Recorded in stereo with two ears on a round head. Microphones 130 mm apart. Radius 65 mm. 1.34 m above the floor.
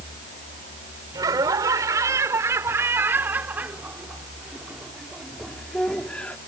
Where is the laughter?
25° right (ahead or behind); by 6.4 s 10° left (ahead or behind).